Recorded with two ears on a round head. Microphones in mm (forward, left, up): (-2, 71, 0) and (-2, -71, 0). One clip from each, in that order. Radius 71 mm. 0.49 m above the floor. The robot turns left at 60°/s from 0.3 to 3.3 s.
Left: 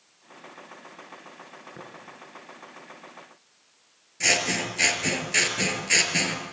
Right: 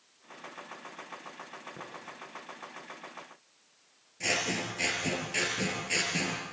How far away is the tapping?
About 8 m.